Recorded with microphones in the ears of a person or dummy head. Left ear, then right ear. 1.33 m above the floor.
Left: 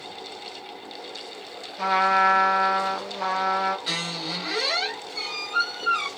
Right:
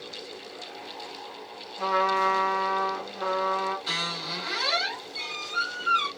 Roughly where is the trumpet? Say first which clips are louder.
Left 4 dB; left.